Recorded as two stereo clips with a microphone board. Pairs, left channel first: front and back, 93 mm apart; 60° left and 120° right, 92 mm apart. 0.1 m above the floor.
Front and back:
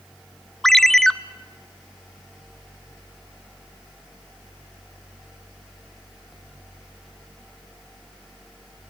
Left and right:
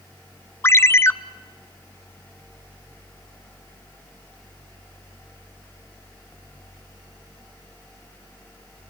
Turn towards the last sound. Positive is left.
turn(degrees=80)